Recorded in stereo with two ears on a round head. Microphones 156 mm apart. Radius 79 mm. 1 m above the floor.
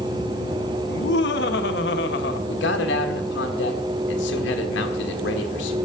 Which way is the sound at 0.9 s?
65° left (ahead or behind).